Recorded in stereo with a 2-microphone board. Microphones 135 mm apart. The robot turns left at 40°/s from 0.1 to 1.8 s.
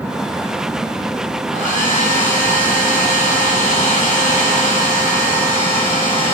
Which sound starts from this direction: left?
A hair dryer, at 1.5 s.